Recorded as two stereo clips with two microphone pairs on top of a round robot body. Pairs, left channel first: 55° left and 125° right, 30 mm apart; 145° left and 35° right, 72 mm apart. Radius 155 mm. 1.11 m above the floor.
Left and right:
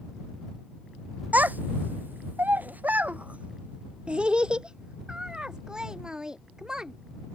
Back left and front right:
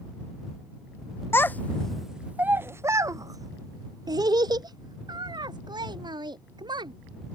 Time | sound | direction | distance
1.3 | a child speaking | 160° right | ?